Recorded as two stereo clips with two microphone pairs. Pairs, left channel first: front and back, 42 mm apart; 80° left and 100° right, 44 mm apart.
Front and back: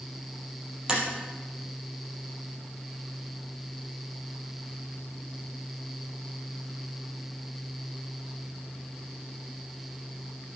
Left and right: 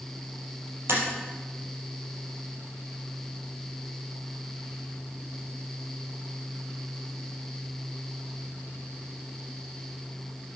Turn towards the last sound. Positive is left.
turn(degrees=-105)